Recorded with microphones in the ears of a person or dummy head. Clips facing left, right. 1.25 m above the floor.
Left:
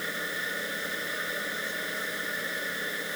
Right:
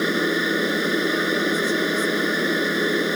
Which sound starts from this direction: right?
A machine running, at 0.0 s.